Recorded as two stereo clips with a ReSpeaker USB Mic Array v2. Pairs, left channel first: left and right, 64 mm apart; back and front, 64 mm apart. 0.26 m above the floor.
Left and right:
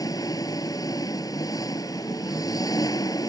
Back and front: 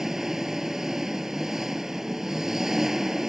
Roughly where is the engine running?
Left.